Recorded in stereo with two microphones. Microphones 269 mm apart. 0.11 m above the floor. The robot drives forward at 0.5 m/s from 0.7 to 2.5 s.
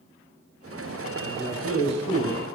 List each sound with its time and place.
1.2 s a man speaking: 40° left (ahead or behind), 1.5 m